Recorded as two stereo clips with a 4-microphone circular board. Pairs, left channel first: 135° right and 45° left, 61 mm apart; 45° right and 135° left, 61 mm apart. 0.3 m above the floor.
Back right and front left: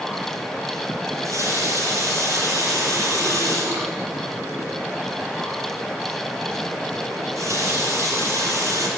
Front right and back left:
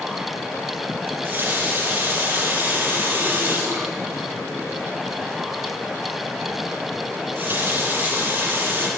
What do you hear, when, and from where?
1.1 s a running tap: 80° left, 5 m